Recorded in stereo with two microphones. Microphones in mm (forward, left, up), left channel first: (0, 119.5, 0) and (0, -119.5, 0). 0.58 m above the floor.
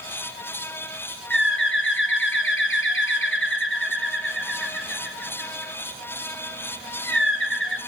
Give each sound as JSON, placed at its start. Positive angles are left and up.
{"t": 1.3, "sound": "a bird", "side_deg": 55, "distance_m": 1.8}